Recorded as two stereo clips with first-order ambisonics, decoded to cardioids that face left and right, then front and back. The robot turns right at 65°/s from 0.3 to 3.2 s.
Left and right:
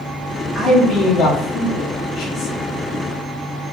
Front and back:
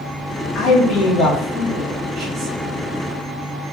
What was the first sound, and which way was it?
A man speaking, 10° left.